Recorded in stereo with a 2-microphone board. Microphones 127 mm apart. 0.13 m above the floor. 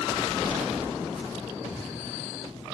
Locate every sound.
1.7 s footsteps: 90° left, 2 m